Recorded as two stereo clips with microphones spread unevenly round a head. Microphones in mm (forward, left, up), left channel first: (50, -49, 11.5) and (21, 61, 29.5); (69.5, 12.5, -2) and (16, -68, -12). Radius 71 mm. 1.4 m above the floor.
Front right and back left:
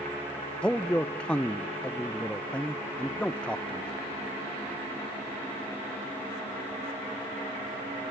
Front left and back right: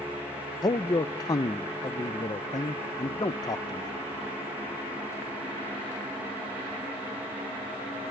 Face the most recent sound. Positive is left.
turn(degrees=10)